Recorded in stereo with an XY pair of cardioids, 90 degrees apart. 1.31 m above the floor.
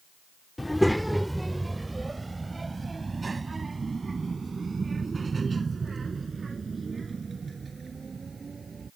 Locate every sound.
0.6 s a child speaking: 15° left; by 8.9 s 40° right